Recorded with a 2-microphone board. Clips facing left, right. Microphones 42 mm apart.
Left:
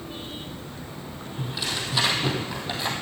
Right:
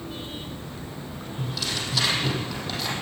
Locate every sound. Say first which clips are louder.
1.4 s tearing paper: even; 20° left (ahead or behind), 3.5 m